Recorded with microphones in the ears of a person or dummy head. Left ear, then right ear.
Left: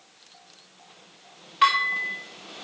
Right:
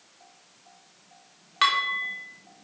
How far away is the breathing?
I don't hear breathing.